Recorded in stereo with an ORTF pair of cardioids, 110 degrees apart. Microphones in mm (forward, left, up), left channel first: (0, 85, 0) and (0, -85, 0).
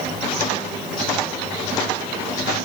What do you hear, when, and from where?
Only background noise.